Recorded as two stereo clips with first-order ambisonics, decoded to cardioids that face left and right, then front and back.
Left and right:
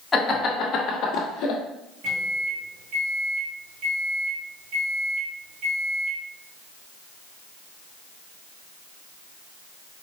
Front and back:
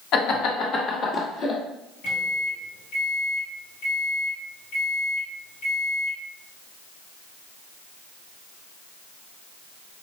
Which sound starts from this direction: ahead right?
A microwave, at 2.0 s.